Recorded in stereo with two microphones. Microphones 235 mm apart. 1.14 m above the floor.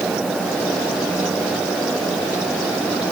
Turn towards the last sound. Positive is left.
No sound to turn to.